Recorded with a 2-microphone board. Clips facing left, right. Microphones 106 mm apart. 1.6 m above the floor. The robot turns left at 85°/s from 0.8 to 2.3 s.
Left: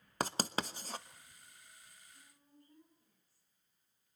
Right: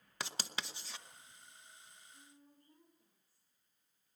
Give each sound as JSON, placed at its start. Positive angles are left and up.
{"t": 0.2, "sound": "writing", "side_deg": 40, "distance_m": 1.0}
{"t": 2.1, "sound": "a woman speaking", "side_deg": -25, "distance_m": 7.0}